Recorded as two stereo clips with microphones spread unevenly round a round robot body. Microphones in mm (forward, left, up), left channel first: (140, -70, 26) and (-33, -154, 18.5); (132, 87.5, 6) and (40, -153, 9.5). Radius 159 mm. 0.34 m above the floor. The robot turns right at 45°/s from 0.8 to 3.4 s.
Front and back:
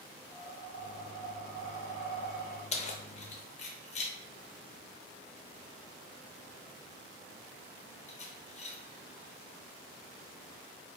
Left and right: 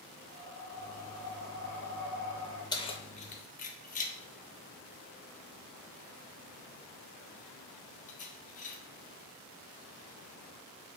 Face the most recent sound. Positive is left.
turn(degrees=40)